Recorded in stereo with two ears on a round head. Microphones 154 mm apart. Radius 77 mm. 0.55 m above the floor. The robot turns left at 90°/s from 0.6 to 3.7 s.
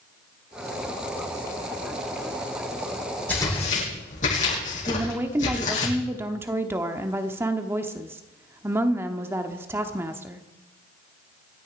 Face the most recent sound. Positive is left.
turn(degrees=-15)  # may be behind; listen again after turning